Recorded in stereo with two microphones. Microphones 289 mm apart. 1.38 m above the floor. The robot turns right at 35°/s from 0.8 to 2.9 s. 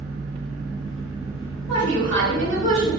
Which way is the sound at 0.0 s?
35° right.